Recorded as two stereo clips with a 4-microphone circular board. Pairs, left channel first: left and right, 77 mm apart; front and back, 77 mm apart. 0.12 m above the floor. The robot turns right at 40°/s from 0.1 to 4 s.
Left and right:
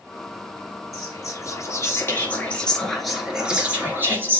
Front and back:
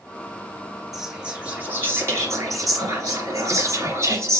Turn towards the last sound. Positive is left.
turn(degrees=-140)